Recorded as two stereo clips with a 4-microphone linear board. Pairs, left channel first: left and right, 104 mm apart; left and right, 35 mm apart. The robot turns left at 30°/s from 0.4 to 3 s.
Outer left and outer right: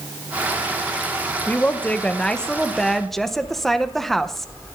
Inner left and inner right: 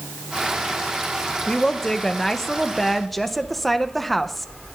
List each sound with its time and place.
1.5 s a woman speaking: 15° left (ahead or behind), 0.7 m; by 4.8 s centre (ahead or behind), 0.7 m